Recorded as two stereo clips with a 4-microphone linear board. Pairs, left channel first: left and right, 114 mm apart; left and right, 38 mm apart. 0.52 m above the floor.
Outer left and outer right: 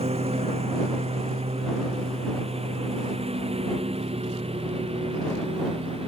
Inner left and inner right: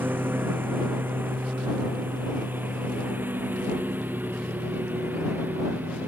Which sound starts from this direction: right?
A lawn mower, at 0.0 s.